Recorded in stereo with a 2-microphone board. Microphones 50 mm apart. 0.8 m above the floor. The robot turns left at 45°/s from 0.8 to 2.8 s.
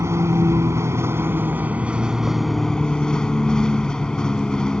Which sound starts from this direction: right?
A vehicle, at 0.0 s.